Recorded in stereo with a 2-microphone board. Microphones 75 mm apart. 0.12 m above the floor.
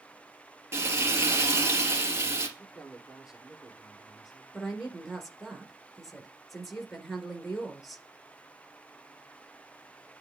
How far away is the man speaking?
About 3.5 m.